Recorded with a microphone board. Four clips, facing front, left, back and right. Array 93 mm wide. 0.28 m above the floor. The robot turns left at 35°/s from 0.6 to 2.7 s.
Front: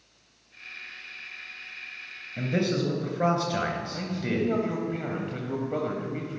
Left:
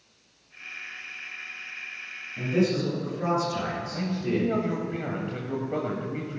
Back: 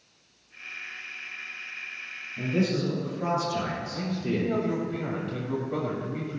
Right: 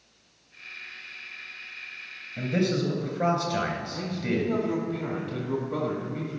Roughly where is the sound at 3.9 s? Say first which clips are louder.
Left 3 dB, even; ahead left.